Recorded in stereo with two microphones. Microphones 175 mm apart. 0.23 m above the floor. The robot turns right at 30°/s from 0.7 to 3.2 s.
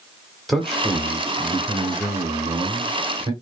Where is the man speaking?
Centre (ahead or behind), 1.1 m; by 3.3 s 25° right (ahead or behind), 1.1 m.